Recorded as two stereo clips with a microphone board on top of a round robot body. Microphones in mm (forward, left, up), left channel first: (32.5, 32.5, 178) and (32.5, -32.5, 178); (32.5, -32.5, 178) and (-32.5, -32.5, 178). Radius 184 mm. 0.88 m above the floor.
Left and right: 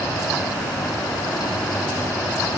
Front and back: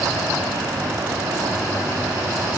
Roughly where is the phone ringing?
I don't hear a phone ringing.